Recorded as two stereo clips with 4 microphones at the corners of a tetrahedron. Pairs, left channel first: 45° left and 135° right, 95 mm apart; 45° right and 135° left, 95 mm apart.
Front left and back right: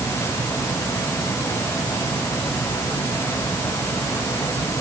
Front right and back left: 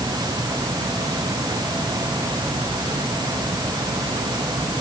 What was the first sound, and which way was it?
Only background noise.